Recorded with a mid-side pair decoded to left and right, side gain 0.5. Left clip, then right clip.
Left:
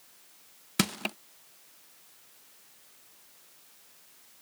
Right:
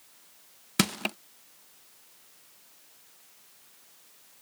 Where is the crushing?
15° right.